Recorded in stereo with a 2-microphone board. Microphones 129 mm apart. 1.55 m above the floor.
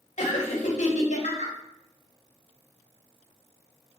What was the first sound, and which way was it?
Laughter, 80° left.